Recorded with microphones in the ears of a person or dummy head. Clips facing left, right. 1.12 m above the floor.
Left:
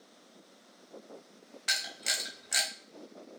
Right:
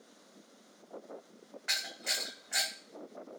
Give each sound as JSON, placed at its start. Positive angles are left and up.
{"t": 1.7, "sound": "a camera shutter", "side_deg": 45, "distance_m": 0.8}